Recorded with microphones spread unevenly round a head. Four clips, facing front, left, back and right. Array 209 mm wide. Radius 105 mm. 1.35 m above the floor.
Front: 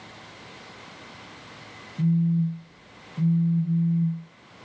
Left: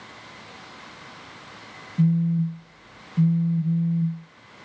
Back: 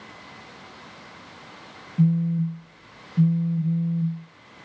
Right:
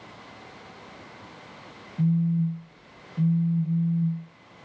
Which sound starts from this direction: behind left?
A phone buzzing, at 2.0 s.